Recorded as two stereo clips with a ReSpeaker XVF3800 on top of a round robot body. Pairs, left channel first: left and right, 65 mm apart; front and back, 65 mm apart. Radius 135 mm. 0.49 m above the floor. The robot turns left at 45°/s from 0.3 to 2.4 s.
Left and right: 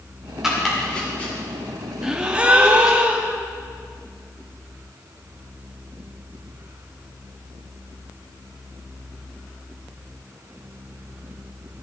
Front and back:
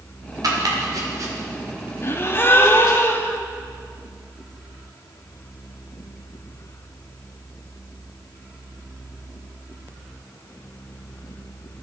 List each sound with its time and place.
0.4 s chopping: 170° right, 2 m; by 3.0 s 100° left, 2 m
2.0 s a gasp: 10° right, 1.0 m; by 3.4 s 25° right, 1.0 m